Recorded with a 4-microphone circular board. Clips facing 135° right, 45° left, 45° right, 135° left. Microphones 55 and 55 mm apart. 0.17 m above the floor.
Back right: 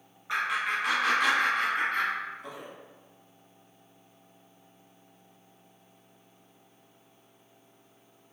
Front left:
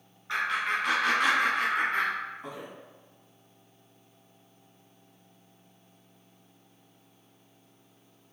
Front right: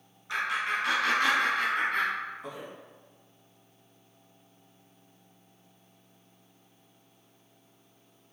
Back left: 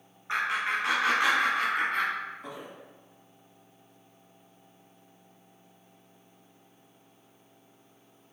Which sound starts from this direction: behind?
Laughter, at 0.3 s.